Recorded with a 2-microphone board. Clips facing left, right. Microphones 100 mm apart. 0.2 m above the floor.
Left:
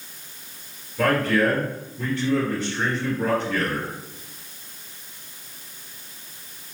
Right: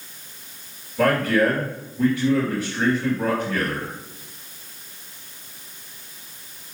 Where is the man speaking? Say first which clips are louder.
Right 2 dB; 10° right (ahead or behind), 2.5 m.